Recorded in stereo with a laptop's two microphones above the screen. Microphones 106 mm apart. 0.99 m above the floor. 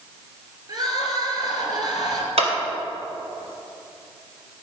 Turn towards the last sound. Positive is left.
turn(degrees=-70)  # may be behind; listen again after turning